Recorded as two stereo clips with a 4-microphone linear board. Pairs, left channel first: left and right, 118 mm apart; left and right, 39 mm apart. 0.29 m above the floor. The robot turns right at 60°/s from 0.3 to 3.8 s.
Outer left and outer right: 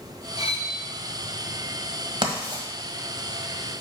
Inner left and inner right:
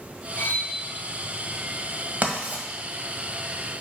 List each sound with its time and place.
0.4 s cutlery clinking: 60° left (ahead or behind), 1.5 m; by 0.7 s 65° left (ahead or behind), 1.5 m
2.2 s writing: 40° right (ahead or behind), 1.4 m; by 2.6 s 35° right (ahead or behind), 1.4 m